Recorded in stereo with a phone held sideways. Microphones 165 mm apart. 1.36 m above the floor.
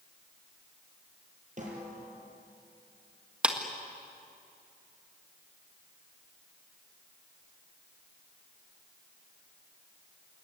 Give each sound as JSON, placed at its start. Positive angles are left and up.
{"t": 1.6, "sound": "a snare drum", "side_deg": -50, "distance_m": 6.0}
{"t": 3.4, "sound": "a clap", "side_deg": -5, "distance_m": 1.9}